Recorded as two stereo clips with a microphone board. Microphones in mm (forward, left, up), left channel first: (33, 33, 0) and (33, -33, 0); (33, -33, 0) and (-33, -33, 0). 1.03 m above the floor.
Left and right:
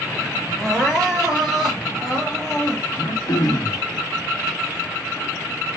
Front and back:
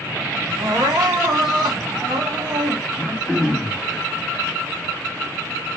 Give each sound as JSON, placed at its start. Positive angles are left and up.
{"t": 0.6, "sound": "crying", "azimuth_deg": 175, "distance_m": 1.8}
{"t": 2.9, "sound": "throat clearing", "azimuth_deg": 100, "distance_m": 1.4}